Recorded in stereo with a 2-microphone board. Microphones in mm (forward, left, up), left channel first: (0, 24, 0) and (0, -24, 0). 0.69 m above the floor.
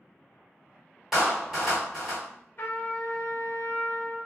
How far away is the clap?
About 1.6 m.